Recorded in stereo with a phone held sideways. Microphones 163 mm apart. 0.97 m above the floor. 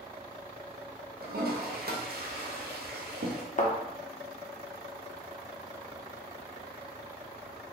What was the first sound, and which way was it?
A toilet flushing, 70° right (ahead or behind).